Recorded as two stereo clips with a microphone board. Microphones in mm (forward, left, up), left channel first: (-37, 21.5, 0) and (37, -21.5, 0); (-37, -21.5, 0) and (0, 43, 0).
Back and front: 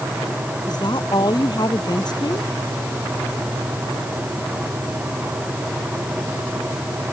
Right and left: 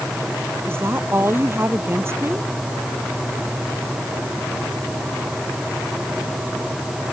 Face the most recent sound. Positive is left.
turn(degrees=115)